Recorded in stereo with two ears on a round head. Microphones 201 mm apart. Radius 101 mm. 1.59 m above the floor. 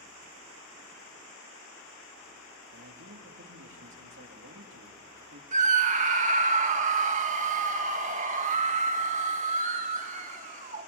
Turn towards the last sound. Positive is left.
turn(degrees=-35)  # may be behind; listen again after turning